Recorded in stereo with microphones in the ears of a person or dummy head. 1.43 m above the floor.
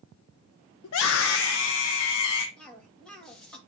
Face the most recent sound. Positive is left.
turn(degrees=10)  # may be behind; listen again after turning